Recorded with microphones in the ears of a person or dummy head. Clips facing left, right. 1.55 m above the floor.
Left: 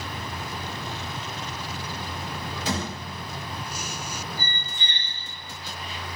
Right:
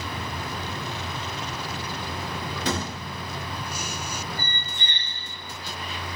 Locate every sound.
2.6 s a thud: 60° right (ahead or behind), 1.9 m
4.4 s a squeak: 55° right (ahead or behind), 2 m